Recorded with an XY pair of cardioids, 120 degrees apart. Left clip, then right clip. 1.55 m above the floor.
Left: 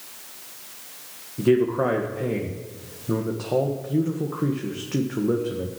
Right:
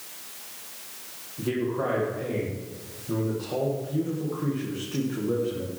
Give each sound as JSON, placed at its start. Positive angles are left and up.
{"t": 1.4, "sound": "a man speaking", "azimuth_deg": 45, "distance_m": 1.7}